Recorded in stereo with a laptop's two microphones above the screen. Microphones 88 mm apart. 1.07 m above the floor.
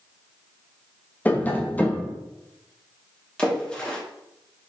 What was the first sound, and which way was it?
Tapping, 20° left (ahead or behind).